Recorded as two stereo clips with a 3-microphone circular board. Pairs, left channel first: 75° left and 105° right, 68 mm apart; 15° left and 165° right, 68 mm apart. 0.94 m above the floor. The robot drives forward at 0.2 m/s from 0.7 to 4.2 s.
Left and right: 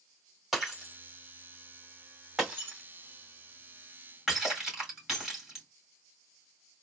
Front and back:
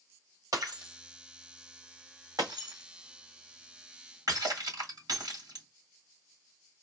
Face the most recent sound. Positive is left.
turn(degrees=170)